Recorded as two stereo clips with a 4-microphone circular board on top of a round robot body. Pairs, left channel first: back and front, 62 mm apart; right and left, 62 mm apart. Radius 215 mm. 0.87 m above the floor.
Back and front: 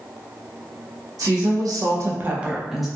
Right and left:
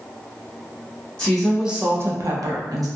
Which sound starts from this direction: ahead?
A woman speaking, at 1.2 s.